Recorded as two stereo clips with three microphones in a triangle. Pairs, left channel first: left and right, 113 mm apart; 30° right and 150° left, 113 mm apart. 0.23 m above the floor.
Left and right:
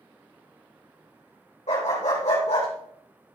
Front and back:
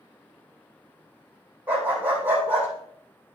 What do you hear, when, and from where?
1.7 s a dog barking: 75° left, 4.5 m